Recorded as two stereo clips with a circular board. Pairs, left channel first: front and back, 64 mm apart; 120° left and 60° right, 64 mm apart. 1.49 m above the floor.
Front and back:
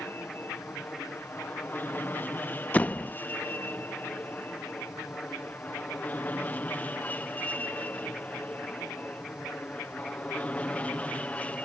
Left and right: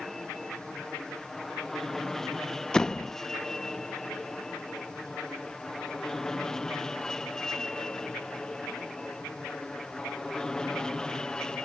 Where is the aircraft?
35° left; by 11.7 s 50° left.